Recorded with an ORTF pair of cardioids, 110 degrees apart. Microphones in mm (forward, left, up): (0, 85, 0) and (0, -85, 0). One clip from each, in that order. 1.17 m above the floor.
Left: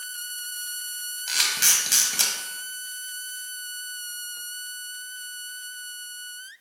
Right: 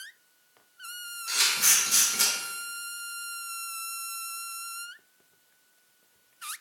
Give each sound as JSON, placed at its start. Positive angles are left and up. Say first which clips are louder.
{"t": 1.3, "sound": "a camera shutter", "louder": "left 2 dB", "azimuth_deg": 50, "distance_m": 1.1}